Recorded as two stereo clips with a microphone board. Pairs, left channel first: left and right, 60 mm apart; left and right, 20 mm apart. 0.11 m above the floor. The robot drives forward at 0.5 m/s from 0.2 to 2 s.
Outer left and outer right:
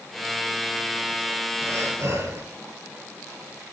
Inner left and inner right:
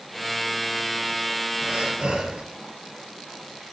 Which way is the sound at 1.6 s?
55° right (ahead or behind).